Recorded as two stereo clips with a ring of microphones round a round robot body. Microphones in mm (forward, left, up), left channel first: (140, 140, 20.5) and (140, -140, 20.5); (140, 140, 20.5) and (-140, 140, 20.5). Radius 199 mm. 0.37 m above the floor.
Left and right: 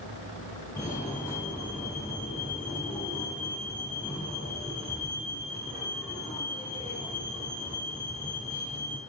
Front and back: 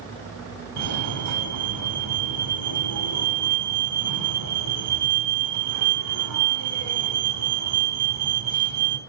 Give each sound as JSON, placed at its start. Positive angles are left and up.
{"t": 0.8, "sound": "a fire alarm", "azimuth_deg": 175, "distance_m": 5.0}